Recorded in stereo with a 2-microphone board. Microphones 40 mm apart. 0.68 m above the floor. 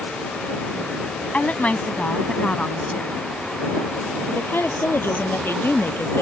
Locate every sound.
1.3 s a woman speaking: 35° left (ahead or behind); by 3.1 s 30° left (ahead or behind)
4.3 s a woman speaking: 70° left (ahead or behind)